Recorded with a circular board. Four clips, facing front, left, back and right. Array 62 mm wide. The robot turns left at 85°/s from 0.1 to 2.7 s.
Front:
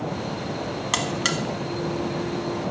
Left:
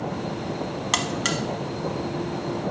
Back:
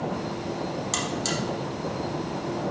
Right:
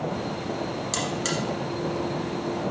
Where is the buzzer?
55° left, 0.8 m; by 1.4 s 15° left, 0.8 m.